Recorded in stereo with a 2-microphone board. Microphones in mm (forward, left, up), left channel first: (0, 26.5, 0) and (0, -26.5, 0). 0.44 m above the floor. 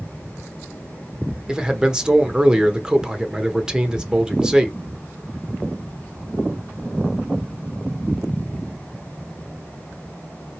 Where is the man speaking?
15° right (ahead or behind), 0.9 m.